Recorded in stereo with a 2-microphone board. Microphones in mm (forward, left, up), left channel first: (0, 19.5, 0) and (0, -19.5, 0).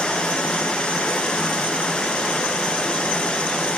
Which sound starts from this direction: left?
Running water, at 0.0 s.